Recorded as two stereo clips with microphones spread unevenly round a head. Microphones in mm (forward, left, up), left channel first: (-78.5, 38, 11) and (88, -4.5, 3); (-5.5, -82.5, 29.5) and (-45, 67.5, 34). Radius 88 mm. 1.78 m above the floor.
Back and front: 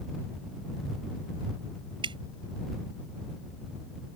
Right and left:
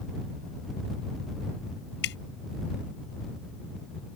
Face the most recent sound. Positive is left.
turn(degrees=-80)